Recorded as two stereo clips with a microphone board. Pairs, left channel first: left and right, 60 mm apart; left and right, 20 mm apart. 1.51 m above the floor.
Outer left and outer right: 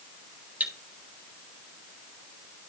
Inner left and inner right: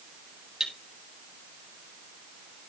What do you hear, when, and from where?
0.6 s cutlery clinking: 30° right (ahead or behind), 2.5 m